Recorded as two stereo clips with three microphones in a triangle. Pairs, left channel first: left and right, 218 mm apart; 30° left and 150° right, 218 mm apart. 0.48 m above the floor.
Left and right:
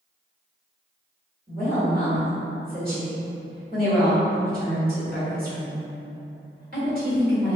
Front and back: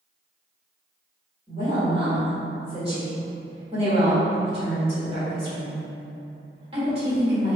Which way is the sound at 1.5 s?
95° right.